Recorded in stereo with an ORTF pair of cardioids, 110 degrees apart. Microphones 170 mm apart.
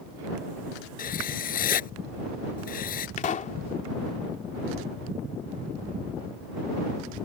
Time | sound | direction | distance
1.0 | writing | 55° left | ?
3.2 | a pop | 50° left | ?